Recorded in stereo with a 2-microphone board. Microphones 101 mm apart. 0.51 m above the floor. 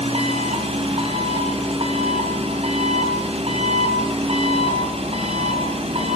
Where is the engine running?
70° right (ahead or behind), 3.5 m.